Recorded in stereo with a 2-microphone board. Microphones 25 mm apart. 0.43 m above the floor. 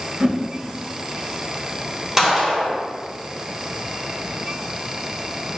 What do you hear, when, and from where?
0.2 s a whoosh: 35° right (ahead or behind), 0.5 m
2.2 s a gunshot: 20° right (ahead or behind), 1.1 m